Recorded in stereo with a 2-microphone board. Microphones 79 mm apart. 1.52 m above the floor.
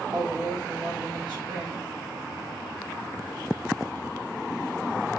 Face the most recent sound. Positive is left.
turn(degrees=-65)  # may be behind; listen again after turning